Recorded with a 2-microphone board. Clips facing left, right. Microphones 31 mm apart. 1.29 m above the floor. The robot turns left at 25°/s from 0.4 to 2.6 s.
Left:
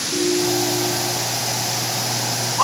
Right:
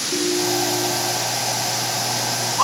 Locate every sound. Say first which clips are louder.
0.1 s a ringtone: left 2 dB; 80° right, 3.5 m; by 1.2 s 60° right (ahead or behind), 3.5 m